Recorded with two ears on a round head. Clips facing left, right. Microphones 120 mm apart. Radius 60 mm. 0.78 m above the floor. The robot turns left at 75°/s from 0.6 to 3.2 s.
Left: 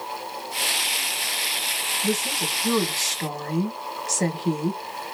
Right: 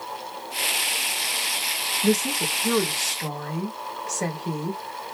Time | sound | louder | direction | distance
2.0 | a woman speaking | right 4 dB | 130° right | 1.6 m